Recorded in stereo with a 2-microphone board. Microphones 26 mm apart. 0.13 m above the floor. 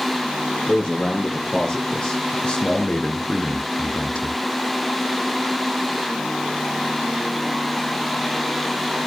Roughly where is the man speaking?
Left.